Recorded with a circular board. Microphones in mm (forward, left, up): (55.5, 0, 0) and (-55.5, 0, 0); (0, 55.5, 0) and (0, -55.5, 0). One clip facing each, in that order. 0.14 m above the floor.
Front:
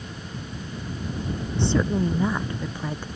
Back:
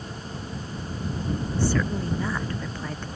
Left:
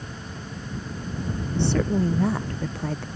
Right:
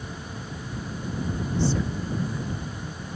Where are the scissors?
I don't hear scissors.